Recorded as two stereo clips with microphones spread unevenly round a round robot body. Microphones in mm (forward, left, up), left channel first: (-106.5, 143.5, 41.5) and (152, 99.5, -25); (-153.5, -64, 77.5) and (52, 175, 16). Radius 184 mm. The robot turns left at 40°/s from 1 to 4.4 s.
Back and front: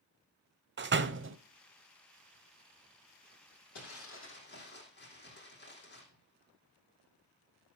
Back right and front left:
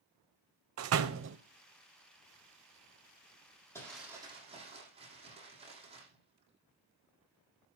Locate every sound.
0.8 s a door slam: 20° left, 1.0 m; by 1.4 s 5° left, 1.0 m
3.8 s crumpling: 150° left, 8.5 m; by 7.8 s 120° left, 8.5 m